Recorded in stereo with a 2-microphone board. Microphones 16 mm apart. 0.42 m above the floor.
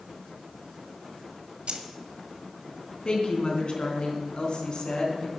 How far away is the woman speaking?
About 3.5 m.